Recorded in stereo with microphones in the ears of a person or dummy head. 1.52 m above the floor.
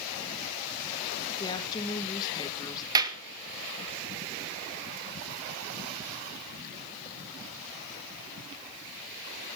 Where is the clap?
25° right (ahead or behind), 2 m.